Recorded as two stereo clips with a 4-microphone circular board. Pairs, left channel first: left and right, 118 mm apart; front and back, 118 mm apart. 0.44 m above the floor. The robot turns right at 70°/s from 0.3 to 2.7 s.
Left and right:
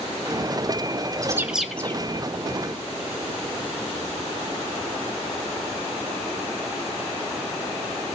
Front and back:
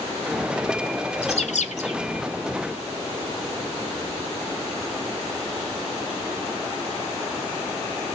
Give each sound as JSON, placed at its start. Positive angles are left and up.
{"t": 1.2, "sound": "a bird", "azimuth_deg": -30, "distance_m": 1.1}